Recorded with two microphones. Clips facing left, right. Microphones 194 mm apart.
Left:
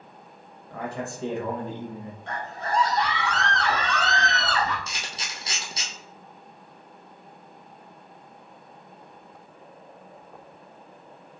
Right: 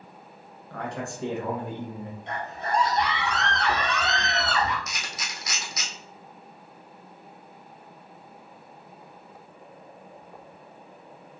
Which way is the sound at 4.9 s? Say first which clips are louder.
Even; 30° left (ahead or behind).